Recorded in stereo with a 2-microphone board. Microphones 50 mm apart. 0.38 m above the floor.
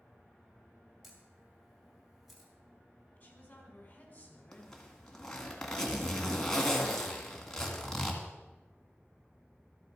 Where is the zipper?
10° left (ahead or behind), 1.9 m.